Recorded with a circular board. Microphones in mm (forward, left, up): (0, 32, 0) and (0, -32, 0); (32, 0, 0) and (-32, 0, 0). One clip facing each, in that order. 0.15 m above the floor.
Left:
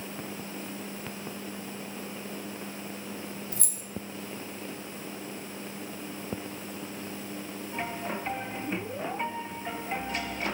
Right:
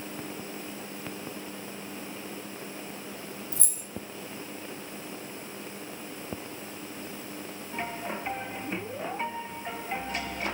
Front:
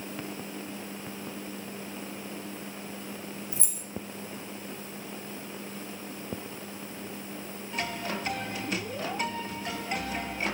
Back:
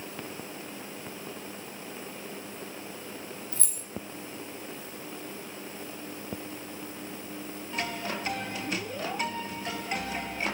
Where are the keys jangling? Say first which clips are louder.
Even, front 1 dB; 70° left, 2 m.